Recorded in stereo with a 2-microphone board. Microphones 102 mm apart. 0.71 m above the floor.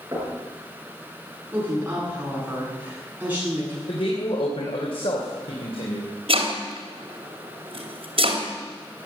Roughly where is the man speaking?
Left.